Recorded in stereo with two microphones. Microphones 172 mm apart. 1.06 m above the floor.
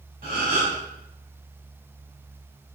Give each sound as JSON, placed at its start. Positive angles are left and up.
{"t": 0.2, "sound": "a gasp", "side_deg": -60, "distance_m": 1.9}